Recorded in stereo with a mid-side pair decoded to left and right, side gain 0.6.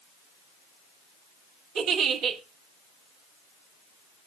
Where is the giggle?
65° right, 2.5 m.